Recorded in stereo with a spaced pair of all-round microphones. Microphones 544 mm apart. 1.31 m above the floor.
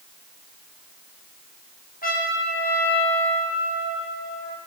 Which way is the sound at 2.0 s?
15° left (ahead or behind).